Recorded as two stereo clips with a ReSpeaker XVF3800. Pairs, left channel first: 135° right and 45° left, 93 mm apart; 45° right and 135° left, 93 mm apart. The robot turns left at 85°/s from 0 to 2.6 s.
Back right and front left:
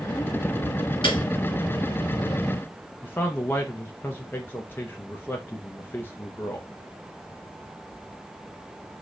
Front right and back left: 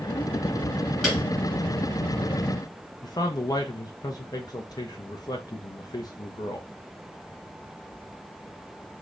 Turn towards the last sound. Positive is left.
turn(degrees=-75)